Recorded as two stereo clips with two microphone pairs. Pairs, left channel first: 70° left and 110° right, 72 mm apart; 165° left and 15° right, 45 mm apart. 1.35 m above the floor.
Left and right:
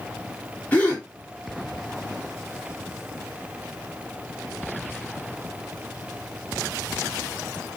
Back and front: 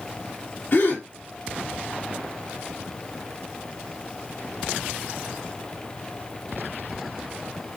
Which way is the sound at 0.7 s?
140° left.